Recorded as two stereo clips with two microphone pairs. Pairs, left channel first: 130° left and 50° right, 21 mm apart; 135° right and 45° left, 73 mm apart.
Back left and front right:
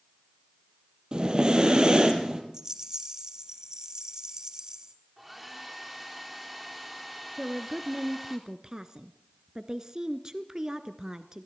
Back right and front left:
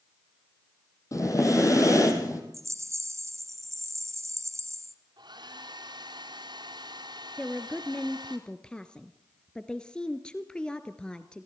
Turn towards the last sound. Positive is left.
turn(degrees=-70)